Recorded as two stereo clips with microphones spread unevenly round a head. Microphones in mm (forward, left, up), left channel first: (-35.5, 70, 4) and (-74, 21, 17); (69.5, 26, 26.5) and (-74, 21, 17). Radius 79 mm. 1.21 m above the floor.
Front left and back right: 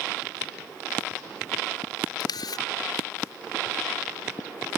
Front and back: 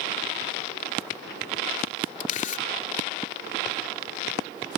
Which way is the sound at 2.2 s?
35° left.